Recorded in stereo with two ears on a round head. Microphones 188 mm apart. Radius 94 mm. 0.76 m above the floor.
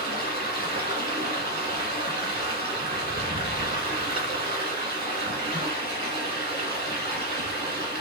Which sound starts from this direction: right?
Running water, at 0.0 s.